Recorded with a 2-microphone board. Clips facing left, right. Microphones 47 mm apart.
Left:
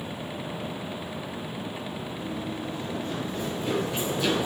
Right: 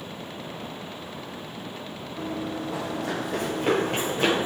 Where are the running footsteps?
55° right (ahead or behind), 1.5 m; by 4.5 s 45° right (ahead or behind), 2.5 m.